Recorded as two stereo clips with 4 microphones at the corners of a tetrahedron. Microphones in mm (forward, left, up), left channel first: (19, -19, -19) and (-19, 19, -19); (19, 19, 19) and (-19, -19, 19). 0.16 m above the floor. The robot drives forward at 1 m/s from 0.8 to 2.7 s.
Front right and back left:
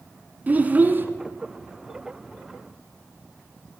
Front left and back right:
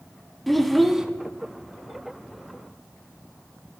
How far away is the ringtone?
I don't hear a ringtone.